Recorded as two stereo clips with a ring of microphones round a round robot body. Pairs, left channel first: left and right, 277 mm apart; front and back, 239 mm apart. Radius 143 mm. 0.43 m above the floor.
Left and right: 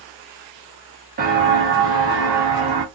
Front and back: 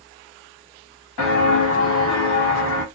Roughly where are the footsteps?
Ahead right.